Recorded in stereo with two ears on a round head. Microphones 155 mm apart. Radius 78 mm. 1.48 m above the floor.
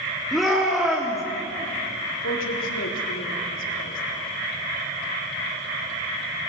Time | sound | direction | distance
0.3 | a shout | centre (ahead or behind) | 3 m
2.2 | a woman speaking | 90° left | 3.5 m